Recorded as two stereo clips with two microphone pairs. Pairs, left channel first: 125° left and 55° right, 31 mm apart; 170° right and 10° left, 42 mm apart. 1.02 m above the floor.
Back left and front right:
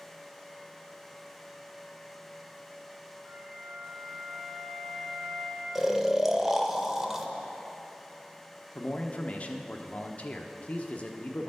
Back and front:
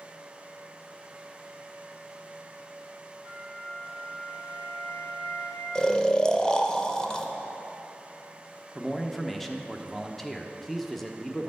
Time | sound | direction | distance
3.2 | a flute | 165° right | 2.5 m
5.8 | snoring | 130° right | 0.7 m
8.8 | a man speaking | 110° left | 0.9 m